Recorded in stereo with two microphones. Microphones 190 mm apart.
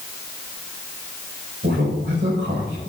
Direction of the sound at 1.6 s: 70° right (ahead or behind).